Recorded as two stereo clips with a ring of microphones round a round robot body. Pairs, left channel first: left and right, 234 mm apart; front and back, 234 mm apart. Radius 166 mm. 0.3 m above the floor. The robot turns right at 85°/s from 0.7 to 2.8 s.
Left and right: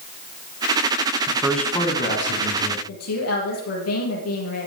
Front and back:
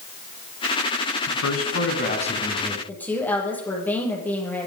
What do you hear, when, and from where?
1.3 s a man speaking: 25° right, 3.5 m; by 2.8 s 105° left, 3.5 m
2.9 s a woman speaking: 85° left, 7 m